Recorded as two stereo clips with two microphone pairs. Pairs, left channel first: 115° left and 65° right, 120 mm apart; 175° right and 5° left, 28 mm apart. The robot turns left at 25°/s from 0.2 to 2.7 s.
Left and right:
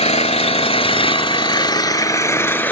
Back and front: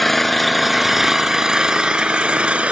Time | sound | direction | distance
0.0 | an engine running | 105° left | 0.7 m